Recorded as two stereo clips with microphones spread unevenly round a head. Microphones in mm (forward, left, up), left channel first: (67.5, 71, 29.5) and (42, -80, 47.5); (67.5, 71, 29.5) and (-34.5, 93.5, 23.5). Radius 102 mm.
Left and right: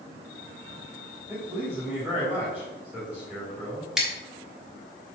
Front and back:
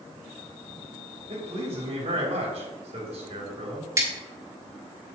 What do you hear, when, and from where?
1.3 s a man speaking: 175° left, 2.5 m
4.0 s scissors: 170° right, 1.2 m